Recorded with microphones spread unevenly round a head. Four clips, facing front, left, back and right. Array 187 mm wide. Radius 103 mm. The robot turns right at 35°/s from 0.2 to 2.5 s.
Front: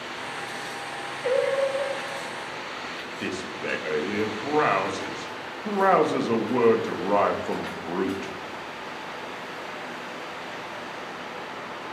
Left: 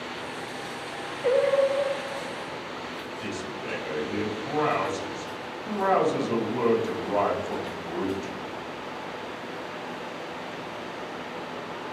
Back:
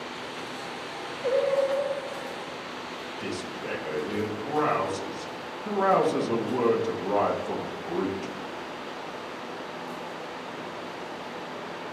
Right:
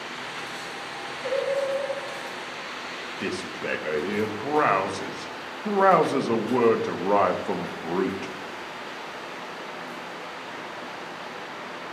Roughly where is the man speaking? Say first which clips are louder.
Right 5 dB, front 3 dB; ahead right.